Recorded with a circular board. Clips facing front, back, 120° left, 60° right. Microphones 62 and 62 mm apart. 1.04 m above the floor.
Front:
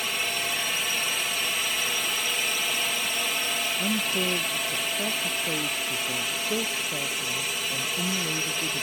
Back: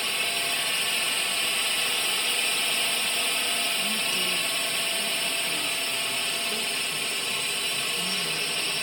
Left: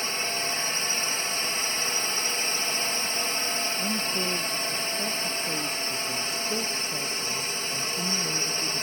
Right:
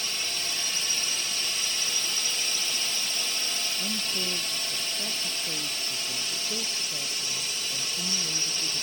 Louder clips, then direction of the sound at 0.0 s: Even, left 5 dB; 85° left.